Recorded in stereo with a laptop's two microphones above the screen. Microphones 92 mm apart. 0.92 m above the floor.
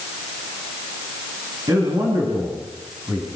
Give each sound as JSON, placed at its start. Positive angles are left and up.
{"t": 1.7, "sound": "a man speaking", "side_deg": -55, "distance_m": 8.0}